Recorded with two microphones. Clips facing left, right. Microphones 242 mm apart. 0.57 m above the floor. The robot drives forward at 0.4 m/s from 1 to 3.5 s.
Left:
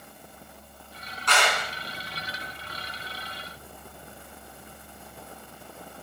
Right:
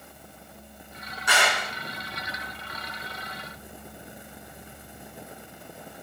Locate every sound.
1.3 s a clap: 10° right (ahead or behind), 5.5 m